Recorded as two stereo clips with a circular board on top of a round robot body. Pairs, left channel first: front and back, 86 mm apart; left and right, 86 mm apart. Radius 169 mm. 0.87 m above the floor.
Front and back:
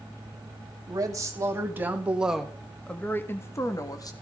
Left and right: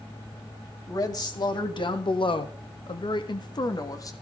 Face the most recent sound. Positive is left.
turn(degrees=40)